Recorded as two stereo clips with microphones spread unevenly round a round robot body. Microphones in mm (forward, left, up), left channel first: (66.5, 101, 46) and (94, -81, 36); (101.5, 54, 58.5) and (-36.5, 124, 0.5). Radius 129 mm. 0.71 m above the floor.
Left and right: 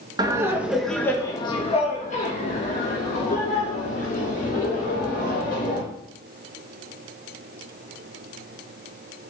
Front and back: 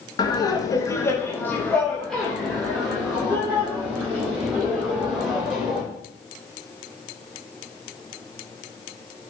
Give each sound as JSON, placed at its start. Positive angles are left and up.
{"t": 0.2, "sound": "laughter", "azimuth_deg": -110, "distance_m": 1.1}